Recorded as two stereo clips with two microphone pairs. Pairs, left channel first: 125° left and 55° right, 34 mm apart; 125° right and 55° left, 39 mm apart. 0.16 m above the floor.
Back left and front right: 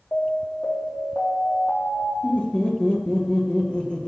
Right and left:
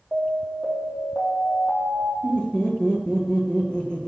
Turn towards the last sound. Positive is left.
turn(degrees=180)